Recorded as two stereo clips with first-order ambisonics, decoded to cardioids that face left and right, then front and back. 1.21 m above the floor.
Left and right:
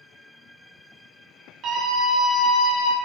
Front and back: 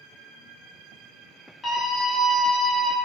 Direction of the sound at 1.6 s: 65° right.